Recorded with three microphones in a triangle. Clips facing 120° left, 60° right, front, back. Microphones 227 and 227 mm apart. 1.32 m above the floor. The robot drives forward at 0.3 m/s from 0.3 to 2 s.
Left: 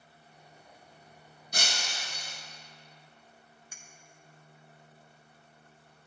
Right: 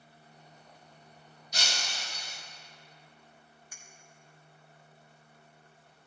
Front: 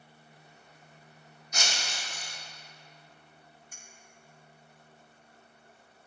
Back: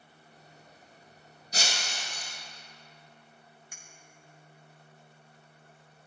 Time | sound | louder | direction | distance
1.5 | breaking glass | left 2 dB, back 1 dB | 130° left | 0.8 m
3.7 | a clink | left 1 dB, even | 175° right | 0.8 m